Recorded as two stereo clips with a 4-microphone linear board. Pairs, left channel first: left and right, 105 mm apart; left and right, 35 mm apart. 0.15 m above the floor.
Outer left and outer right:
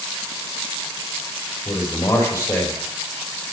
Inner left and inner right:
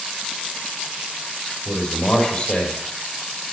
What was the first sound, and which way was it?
A man speaking, 25° left (ahead or behind).